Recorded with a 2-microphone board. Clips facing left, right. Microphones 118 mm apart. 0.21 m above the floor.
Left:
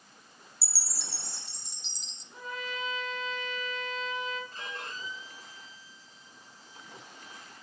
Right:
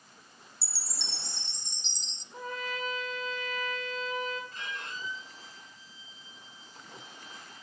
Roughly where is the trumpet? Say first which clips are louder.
Right 2 dB; right.